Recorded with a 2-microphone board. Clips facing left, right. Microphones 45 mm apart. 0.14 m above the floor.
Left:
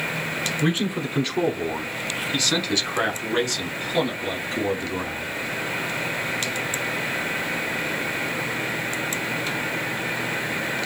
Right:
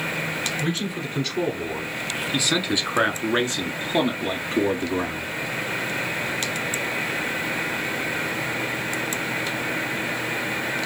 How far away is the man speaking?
About 1.2 m.